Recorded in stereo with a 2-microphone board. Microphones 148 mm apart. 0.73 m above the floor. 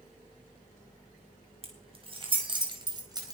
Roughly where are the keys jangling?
Right.